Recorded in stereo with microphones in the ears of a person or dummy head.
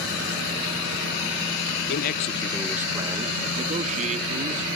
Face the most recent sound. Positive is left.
turn(degrees=-45)  # may be behind; listen again after turning